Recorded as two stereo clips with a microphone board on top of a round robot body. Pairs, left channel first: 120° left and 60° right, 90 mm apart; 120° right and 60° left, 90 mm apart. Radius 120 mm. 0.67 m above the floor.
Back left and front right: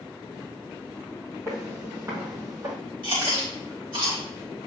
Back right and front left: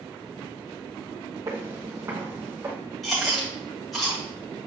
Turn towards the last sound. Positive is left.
turn(degrees=-30)